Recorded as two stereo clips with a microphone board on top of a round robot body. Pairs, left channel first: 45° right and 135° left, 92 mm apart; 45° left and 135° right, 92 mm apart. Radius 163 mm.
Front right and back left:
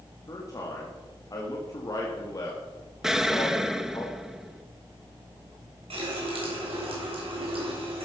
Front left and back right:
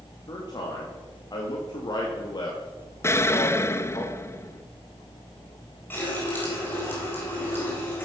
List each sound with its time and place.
0.3 s a man speaking: 5° left, 2 m
3.0 s an explosion: 55° left, 1.0 m
5.9 s a running tap: 115° left, 4 m